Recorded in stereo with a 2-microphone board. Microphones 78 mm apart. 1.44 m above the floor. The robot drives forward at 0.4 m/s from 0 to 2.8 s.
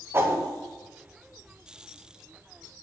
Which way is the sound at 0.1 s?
30° right (ahead or behind).